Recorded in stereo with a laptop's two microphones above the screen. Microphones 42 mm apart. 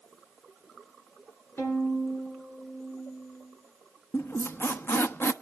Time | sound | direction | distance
1.6 | a violin | 60° left (ahead or behind) | 8 m
4.1 | a squeak | 60° left (ahead or behind) | 0.9 m